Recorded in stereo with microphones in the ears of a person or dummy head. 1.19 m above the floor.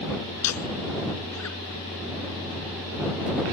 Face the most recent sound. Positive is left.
turn(degrees=85)